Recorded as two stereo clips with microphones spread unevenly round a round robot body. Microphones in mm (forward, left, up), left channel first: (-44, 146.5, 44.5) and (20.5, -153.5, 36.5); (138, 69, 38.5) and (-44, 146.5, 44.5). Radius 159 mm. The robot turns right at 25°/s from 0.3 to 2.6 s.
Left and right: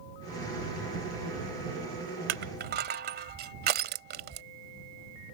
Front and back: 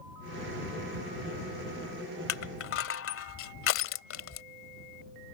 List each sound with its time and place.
2.3 s crushing: 25° right; by 4.4 s 15° right